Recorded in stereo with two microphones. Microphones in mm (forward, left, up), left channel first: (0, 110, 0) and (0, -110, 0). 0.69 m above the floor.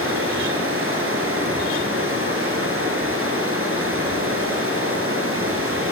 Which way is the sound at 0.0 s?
75° right (ahead or behind).